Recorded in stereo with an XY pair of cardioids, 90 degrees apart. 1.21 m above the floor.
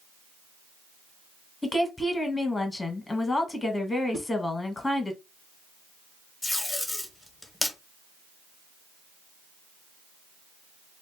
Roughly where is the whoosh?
Ahead right.